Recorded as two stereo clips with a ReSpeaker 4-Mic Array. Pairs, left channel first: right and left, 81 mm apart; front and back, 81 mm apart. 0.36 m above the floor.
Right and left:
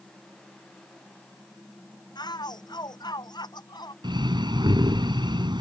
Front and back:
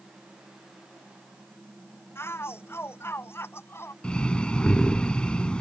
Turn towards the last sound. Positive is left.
turn(degrees=75)